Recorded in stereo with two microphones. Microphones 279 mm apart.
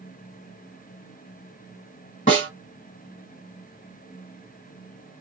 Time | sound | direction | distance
2.3 | a snare drum | 30° left (ahead or behind) | 1.6 m